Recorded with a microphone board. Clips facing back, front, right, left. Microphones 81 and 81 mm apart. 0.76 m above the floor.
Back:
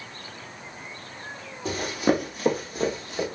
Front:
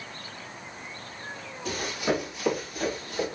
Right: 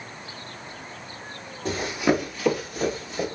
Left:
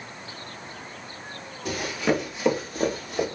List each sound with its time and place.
1.6 s running footsteps: 140° right, 1.3 m; by 3.2 s 115° left, 1.9 m